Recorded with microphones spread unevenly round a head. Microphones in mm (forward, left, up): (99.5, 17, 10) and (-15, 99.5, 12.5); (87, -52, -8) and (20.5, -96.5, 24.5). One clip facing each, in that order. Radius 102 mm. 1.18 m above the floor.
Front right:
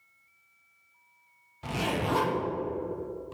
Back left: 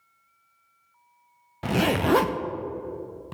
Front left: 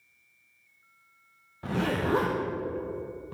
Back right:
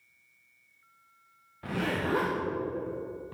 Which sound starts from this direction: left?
A zipper, at 1.6 s.